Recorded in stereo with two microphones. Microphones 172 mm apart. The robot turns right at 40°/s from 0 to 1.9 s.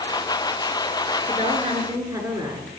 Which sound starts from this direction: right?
A woman speaking, at 1.3 s.